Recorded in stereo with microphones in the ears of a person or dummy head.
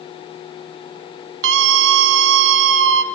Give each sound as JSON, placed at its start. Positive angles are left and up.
{"t": 1.4, "sound": "a scream", "side_deg": -65, "distance_m": 2.5}